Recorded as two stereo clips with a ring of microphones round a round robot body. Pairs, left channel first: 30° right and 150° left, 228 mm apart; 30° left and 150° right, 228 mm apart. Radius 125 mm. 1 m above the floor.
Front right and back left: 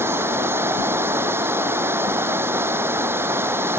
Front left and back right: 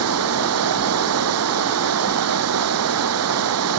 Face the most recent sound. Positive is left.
turn(degrees=-130)